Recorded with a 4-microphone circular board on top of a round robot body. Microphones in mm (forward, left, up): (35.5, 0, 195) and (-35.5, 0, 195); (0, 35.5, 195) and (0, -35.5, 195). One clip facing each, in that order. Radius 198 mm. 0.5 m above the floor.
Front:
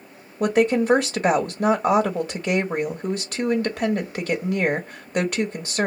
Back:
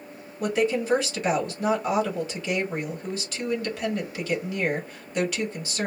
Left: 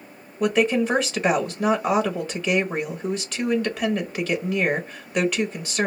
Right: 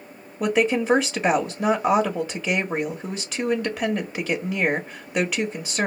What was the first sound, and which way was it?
A woman speaking, 15° right.